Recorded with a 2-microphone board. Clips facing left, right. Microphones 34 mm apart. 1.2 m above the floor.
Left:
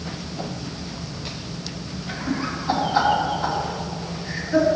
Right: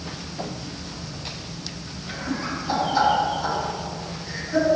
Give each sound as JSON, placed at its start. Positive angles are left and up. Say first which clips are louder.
{"t": 2.1, "sound": "laughter", "louder": "left 2 dB", "side_deg": 30, "distance_m": 3.5}